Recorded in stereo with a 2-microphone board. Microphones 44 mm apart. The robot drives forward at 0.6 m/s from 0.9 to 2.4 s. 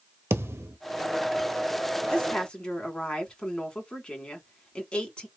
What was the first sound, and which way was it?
A thud, 80° right.